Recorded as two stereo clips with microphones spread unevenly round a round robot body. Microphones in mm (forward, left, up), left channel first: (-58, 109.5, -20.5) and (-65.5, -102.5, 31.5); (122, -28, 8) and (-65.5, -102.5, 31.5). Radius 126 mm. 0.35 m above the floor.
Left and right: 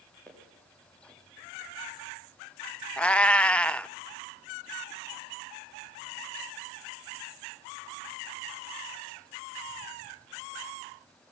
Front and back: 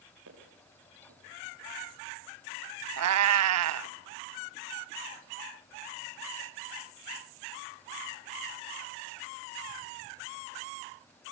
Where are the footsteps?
170° left, 9.5 m.